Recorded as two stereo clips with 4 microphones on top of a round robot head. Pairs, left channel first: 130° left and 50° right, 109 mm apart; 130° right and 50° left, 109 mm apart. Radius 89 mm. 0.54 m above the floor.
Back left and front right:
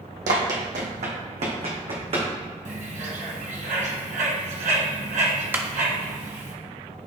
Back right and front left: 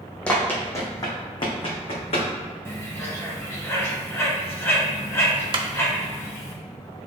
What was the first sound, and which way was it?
Running footsteps, 50° right.